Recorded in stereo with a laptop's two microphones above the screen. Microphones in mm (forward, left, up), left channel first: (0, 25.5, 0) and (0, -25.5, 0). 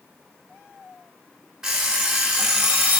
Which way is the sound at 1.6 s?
10° right (ahead or behind).